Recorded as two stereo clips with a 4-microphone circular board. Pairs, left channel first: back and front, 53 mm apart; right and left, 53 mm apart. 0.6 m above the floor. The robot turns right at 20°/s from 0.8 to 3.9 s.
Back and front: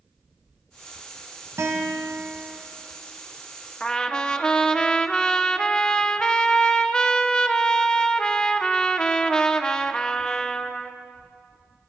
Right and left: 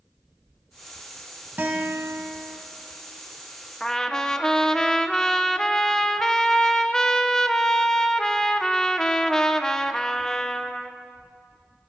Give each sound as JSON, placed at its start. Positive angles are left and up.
{"t": 1.6, "sound": "a guitar", "azimuth_deg": 30, "distance_m": 1.6}
{"t": 3.8, "sound": "a trumpet", "azimuth_deg": -145, "distance_m": 0.6}